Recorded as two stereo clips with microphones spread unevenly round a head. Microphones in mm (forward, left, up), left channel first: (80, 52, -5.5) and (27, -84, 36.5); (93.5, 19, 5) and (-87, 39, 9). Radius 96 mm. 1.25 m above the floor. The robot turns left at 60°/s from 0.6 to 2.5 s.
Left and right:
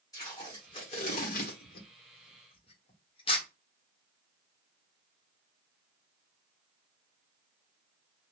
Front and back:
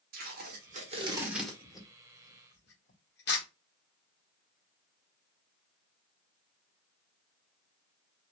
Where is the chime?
No chime in this recording.